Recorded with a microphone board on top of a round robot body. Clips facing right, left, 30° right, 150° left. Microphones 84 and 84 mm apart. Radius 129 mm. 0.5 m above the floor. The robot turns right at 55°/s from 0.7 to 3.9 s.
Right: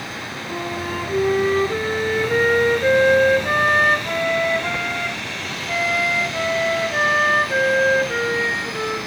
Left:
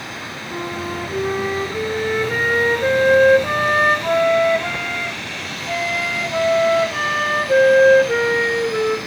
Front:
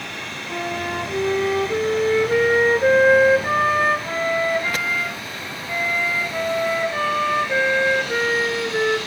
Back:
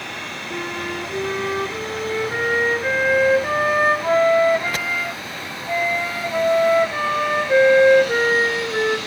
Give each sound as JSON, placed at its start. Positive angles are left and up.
{"t": 0.5, "sound": "a flute", "azimuth_deg": -95, "distance_m": 2.5}